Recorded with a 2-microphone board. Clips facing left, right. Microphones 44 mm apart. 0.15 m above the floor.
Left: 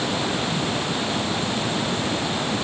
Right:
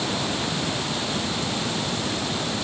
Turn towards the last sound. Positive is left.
No sound to turn to.